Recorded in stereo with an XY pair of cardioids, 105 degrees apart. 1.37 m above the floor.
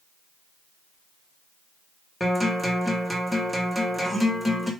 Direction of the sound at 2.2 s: 10° left.